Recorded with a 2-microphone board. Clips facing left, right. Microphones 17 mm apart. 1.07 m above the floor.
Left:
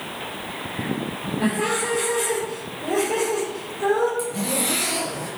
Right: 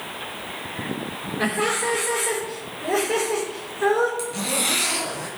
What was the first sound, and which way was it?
Laughter, 85° right.